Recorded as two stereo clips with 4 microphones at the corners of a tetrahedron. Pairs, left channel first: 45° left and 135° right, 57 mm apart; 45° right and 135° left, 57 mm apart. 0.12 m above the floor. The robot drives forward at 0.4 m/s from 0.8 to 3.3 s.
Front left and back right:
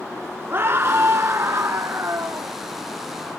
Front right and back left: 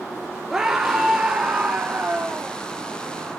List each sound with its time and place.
0.5 s a scream: 145° right, 1.7 m; by 2.5 s 155° right, 2 m